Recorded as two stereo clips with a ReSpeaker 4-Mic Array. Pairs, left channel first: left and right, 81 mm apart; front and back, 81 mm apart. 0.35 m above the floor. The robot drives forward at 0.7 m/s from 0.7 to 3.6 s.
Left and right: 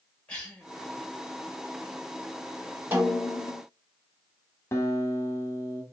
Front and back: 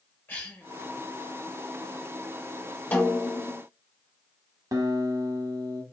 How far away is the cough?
About 1.3 m.